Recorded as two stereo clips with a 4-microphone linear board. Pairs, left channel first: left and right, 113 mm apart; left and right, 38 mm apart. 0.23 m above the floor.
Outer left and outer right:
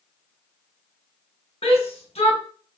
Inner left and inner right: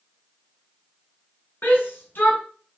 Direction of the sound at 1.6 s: 60° left (ahead or behind).